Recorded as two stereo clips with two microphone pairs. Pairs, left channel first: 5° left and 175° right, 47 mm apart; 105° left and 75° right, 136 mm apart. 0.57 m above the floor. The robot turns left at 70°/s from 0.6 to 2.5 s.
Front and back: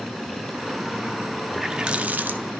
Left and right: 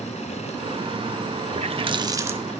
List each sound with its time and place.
1.5 s a running tap: 85° right, 0.7 m; by 2.6 s 155° right, 0.7 m